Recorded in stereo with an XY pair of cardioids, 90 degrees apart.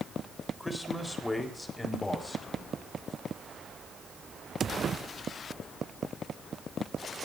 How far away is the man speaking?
About 4 m.